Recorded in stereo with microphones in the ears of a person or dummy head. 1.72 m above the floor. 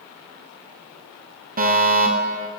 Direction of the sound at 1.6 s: 40° right (ahead or behind).